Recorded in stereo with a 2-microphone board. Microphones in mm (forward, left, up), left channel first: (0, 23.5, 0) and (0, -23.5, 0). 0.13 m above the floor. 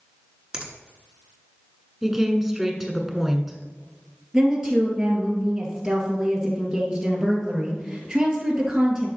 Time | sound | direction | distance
0.5 | a finger snap | 15° right (ahead or behind) | 1.4 m
2.0 | a woman speaking | 10° right (ahead or behind) | 1.1 m
4.3 | a woman speaking | 15° right (ahead or behind) | 2.5 m